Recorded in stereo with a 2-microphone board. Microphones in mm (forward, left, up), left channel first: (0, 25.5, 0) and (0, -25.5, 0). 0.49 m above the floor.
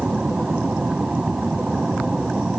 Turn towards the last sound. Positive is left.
turn(degrees=-20)  # may be behind; listen again after turning